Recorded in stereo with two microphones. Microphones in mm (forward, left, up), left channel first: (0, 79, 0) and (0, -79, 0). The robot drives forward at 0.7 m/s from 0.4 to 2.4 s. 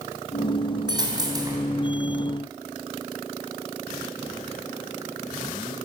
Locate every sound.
0.9 s a dropped coin: 30° right (ahead or behind), 3.5 m; by 1.6 s 25° right (ahead or behind), 4 m